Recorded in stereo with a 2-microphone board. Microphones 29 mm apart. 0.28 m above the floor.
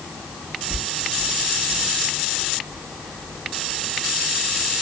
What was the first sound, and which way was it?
Whispering, 60° right (ahead or behind).